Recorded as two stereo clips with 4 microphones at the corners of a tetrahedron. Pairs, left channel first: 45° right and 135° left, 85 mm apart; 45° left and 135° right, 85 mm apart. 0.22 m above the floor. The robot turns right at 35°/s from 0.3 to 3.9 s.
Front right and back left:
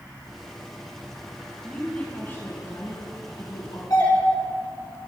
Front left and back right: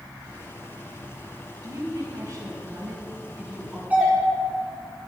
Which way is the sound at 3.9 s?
70° right.